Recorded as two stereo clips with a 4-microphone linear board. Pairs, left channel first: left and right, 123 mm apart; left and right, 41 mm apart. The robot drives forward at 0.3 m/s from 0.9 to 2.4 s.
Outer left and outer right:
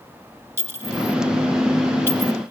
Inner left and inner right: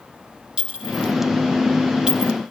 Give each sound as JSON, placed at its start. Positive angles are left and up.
{"t": 0.6, "sound": "a clink", "side_deg": -20, "distance_m": 1.9}